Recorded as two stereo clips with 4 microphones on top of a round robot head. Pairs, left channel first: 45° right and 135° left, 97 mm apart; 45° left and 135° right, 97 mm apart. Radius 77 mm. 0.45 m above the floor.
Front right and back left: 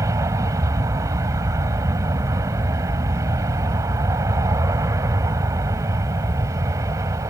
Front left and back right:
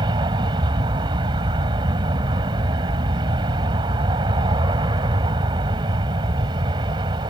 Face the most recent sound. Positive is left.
turn(degrees=-170)